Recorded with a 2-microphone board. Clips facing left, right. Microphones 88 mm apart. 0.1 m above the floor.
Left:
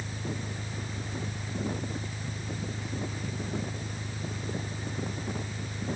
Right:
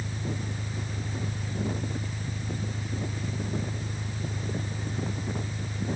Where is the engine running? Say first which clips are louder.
Right 2 dB; centre (ahead or behind).